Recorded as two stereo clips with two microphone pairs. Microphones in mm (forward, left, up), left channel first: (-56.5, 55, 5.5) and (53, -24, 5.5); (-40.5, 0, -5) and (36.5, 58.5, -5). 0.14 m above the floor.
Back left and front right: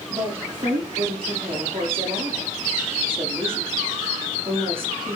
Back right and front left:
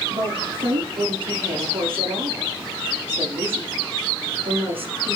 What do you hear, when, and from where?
0.1 s a woman speaking: 10° left, 7.5 m